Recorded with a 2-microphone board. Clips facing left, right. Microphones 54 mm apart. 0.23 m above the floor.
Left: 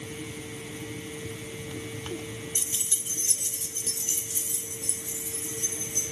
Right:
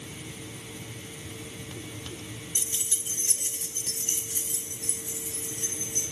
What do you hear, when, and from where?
2.5 s keys jangling: 15° left (ahead or behind), 0.6 m; by 6.0 s 50° right (ahead or behind), 3.5 m